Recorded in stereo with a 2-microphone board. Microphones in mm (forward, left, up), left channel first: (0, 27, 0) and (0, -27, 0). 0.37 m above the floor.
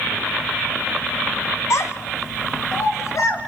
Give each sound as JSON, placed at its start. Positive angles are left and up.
{"t": 1.7, "sound": "a child speaking", "side_deg": 65, "distance_m": 1.5}